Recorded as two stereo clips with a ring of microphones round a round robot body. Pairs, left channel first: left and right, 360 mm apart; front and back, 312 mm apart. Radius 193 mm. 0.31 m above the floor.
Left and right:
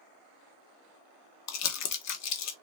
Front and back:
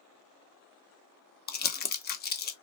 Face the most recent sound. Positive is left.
turn(degrees=55)